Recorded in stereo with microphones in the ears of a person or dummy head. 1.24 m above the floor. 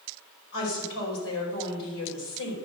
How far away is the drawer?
I don't hear a drawer.